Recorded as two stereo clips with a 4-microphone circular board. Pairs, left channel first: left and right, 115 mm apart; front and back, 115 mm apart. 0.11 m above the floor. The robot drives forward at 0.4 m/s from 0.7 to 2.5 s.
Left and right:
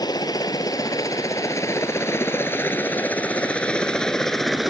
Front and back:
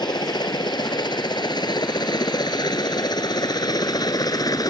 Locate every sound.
0.0 s a helicopter: 40° left; by 4.7 s 5° right